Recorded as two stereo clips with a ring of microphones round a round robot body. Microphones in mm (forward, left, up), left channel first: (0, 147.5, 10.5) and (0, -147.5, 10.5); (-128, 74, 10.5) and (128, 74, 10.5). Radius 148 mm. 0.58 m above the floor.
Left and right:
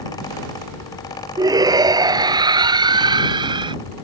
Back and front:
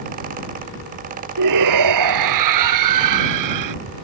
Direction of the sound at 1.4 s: 10° right.